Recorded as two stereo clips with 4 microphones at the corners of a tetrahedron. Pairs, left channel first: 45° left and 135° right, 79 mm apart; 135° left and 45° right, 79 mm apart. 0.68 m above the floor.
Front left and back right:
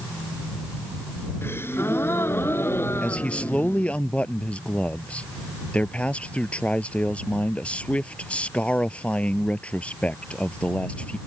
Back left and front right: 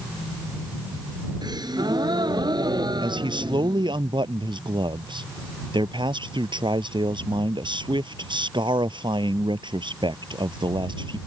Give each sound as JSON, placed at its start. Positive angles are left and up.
{"t": 1.4, "sound": "a gasp", "azimuth_deg": -15}
{"t": 3.0, "sound": "a man speaking", "azimuth_deg": -30}